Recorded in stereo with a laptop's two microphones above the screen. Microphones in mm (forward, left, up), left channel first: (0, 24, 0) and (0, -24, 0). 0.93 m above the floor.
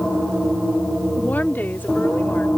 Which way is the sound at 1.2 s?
35° left (ahead or behind).